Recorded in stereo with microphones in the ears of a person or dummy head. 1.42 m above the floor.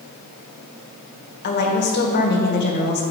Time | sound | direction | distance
1.4 | a woman speaking | 55° left (ahead or behind) | 1.4 m